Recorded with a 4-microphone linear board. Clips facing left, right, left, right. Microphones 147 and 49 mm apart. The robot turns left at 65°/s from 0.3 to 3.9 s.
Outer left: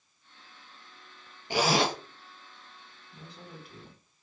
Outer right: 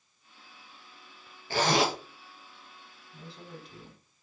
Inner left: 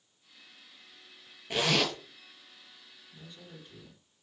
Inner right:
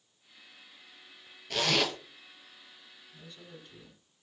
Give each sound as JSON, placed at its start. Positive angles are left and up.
{"t": 1.5, "sound": "a zipper", "side_deg": 20, "distance_m": 0.6}
{"t": 3.1, "sound": "a woman speaking", "azimuth_deg": 45, "distance_m": 2.0}